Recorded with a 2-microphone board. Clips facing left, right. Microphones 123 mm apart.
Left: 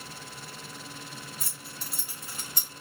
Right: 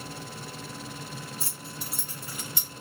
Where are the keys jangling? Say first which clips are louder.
Right 4 dB; 30° right (ahead or behind), 0.9 m; by 2.7 s 45° left (ahead or behind), 0.8 m.